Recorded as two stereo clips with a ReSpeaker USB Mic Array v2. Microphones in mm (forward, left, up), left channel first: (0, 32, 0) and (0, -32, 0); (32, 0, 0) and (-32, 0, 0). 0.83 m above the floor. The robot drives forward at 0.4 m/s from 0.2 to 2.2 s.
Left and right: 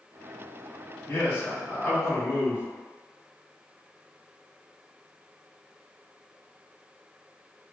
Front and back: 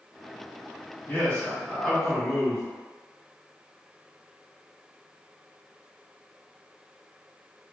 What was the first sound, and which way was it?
A man speaking, 55° left.